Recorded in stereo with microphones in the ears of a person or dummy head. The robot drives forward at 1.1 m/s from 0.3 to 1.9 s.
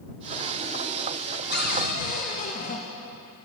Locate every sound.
1.5 s a cupboard door: 55° left (ahead or behind), 1.3 m; by 2.8 s 45° left (ahead or behind), 1.6 m